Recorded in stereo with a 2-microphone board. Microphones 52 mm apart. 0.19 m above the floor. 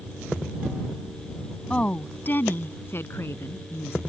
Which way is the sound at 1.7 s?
25° left (ahead or behind).